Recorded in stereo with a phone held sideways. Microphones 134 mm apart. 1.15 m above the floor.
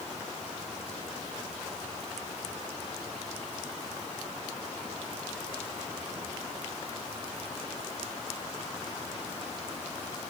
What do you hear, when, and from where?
Only background noise.